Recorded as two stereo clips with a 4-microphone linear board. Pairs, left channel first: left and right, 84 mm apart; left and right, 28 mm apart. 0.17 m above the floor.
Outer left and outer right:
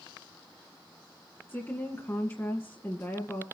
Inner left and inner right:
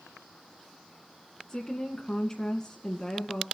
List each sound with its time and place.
1.5 s a woman speaking: 30° left (ahead or behind), 1.8 m